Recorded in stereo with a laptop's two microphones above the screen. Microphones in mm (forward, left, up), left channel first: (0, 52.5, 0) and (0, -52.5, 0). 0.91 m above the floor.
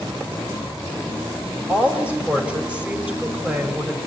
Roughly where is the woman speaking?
Centre.